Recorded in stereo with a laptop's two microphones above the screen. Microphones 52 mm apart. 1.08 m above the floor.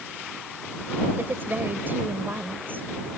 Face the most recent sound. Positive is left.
turn(degrees=-40)  # may be behind; listen again after turning